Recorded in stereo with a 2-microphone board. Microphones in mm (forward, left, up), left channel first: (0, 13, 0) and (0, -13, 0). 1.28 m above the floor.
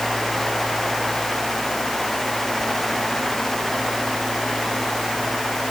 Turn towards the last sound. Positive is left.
No sound to turn to.